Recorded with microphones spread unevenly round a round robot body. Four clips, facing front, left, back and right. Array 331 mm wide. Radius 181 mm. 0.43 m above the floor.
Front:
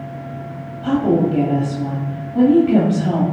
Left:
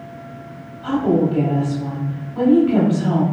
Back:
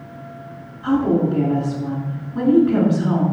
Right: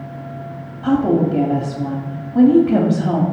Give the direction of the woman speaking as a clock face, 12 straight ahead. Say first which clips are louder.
Right 2 dB, front 1 dB; 2 o'clock.